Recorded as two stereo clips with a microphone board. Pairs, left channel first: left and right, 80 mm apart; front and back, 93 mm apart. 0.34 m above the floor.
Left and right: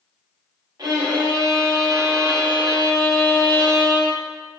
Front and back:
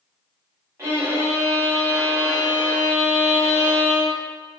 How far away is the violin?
About 1.1 m.